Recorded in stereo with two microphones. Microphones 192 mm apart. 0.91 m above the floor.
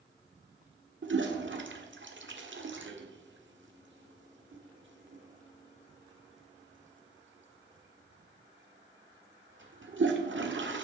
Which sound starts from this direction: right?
A toilet flushing, at 1.0 s.